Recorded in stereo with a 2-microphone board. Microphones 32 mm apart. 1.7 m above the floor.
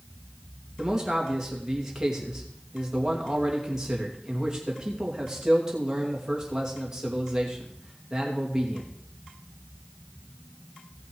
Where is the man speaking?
15° right (ahead or behind), 2.5 m.